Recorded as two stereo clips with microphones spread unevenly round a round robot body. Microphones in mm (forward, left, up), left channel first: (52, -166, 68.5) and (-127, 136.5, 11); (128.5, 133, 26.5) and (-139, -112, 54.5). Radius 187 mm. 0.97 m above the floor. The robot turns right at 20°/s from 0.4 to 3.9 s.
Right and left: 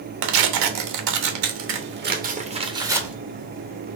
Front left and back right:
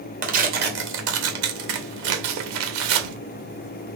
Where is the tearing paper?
155° left, 0.8 m; by 3.1 s 150° right, 0.8 m.